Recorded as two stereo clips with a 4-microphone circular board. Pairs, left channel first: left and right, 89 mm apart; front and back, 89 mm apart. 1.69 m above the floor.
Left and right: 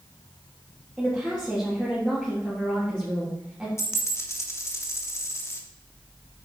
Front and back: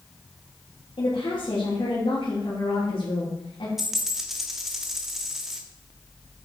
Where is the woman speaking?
15° right, 3.5 m.